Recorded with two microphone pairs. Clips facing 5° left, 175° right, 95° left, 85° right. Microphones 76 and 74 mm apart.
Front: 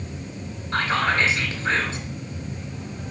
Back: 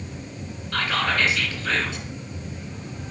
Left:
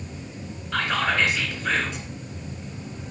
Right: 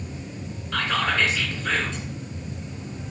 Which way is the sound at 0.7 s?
20° left.